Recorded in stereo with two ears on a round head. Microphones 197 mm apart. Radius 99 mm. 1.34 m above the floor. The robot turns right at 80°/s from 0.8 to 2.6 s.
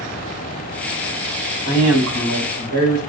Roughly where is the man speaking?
Behind right.